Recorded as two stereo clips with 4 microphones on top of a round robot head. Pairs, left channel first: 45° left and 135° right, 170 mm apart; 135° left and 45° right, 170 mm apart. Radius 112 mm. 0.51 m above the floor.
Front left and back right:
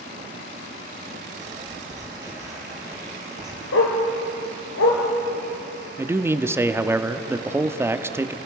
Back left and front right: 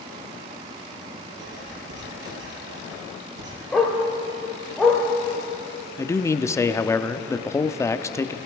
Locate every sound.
1.4 s writing: 65° right, 5 m
3.7 s a dog barking: 50° left, 3 m
6.0 s a man speaking: 175° left, 0.9 m